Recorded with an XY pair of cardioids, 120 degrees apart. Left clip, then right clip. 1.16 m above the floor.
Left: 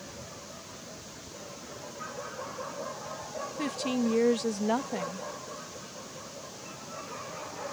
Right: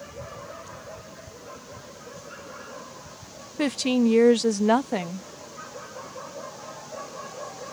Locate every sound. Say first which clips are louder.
3.6 s a woman speaking: right 8 dB; 50° right